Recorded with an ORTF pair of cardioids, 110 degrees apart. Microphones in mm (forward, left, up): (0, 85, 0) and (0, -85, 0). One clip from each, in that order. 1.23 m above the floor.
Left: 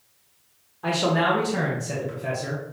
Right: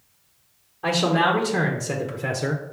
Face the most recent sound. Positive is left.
turn(degrees=-55)